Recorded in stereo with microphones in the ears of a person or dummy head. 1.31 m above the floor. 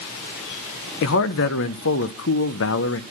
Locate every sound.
1.0 s a man speaking: 65° left (ahead or behind), 0.6 m